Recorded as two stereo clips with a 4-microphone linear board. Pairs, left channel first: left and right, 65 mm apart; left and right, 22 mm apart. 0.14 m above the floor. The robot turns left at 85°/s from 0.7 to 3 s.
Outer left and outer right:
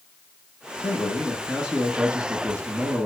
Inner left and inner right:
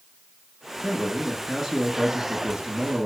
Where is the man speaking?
55° left, 2 m; by 3.1 s 130° right, 2 m.